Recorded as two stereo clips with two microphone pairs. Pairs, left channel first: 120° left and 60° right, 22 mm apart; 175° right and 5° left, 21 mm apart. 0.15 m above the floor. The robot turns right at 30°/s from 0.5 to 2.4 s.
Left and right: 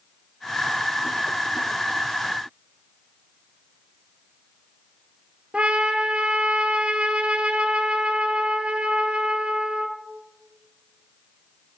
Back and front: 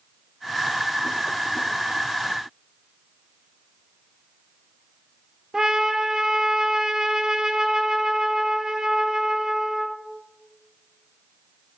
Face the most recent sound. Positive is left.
turn(degrees=-55)